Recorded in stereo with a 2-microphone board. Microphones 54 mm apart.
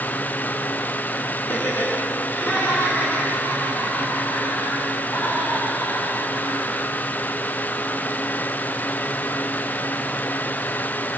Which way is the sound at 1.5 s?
65° left (ahead or behind).